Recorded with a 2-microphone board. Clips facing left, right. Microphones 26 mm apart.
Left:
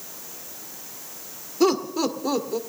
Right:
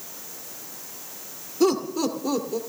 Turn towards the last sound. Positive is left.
turn(degrees=15)  # may be behind; listen again after turning